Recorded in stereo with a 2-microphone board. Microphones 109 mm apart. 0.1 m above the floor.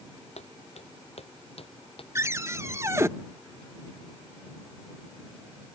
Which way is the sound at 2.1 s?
25° right (ahead or behind).